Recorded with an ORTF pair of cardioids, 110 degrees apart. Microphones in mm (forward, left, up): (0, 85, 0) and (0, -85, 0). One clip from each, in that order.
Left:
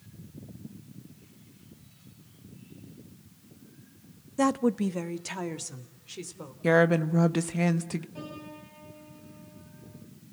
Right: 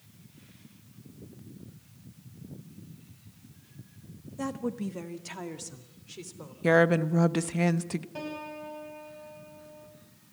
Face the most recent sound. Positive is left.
turn(degrees=-60)